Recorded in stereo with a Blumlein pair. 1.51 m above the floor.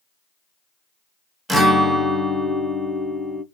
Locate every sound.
1.5 s a guitar: 5° right, 0.6 m